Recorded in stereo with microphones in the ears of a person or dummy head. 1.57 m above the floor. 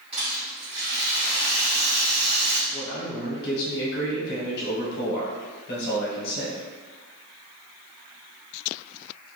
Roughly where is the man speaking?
Left.